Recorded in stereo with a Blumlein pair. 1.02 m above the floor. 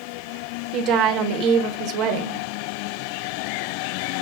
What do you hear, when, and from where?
0.7 s a woman speaking: 35° right, 0.7 m